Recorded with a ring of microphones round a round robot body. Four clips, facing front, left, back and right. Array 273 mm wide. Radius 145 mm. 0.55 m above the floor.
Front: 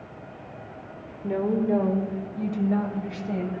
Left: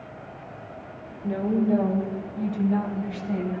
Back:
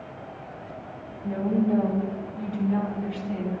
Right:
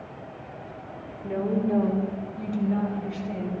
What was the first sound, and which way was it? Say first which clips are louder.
A woman speaking: left 2 dB, even; 15° right.